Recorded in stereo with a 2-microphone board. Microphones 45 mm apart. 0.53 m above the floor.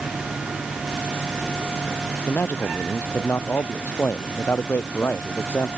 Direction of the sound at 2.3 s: 50° left (ahead or behind).